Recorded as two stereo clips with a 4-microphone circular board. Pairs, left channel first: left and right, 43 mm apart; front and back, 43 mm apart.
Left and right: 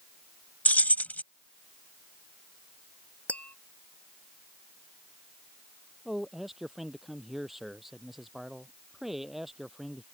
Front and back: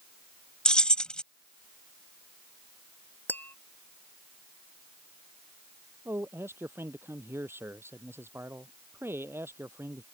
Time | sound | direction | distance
0.7 | keys jangling | 60° left | ?
3.3 | tapping | 35° left | ?
6.0 | a man speaking | 175° right | ?